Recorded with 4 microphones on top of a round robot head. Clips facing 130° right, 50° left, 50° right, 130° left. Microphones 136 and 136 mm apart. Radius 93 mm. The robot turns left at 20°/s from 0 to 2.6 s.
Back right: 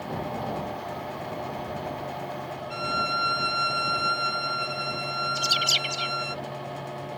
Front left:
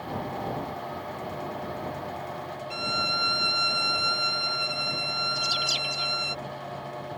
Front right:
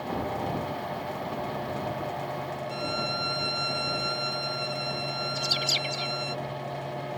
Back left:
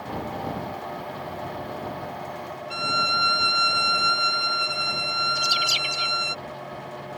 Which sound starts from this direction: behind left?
A violin, at 2.7 s.